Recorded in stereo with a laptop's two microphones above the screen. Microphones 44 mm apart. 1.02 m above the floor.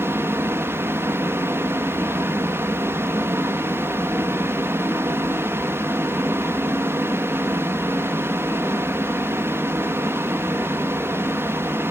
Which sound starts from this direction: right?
A fan, at 0.0 s.